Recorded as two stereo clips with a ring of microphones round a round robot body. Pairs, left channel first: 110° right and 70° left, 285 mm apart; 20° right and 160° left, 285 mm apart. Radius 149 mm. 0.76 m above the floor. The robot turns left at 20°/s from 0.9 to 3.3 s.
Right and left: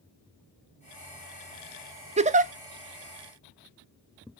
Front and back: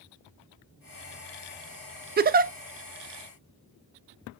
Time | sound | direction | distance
2.2 | a giggle | 120° left | 0.7 m